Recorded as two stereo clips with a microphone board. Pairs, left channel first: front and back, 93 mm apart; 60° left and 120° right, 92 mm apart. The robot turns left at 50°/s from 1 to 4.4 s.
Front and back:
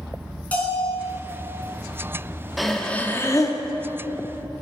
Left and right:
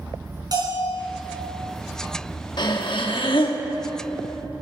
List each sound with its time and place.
0.5 s a bell: 75° right, 3 m
2.6 s breathing: 90° left, 1.0 m; by 3.6 s 40° left, 1.0 m